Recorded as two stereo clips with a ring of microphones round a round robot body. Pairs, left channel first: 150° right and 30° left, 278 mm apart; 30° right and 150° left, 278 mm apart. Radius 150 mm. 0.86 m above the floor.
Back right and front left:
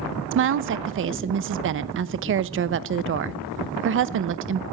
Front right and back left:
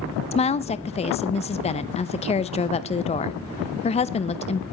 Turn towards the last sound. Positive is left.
turn(degrees=30)